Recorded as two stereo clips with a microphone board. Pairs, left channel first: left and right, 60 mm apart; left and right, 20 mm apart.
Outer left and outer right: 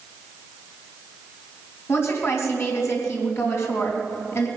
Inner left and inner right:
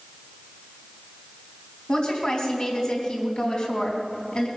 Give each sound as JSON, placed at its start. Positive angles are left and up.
{"t": 1.9, "sound": "a woman speaking", "side_deg": 50, "distance_m": 3.0}